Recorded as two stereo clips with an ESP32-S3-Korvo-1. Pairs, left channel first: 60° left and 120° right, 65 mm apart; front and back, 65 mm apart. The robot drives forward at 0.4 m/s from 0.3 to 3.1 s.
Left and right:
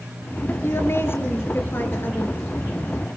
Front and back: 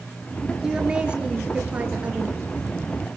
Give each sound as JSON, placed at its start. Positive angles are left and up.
{"t": 0.6, "sound": "a woman speaking", "azimuth_deg": 105, "distance_m": 4.0}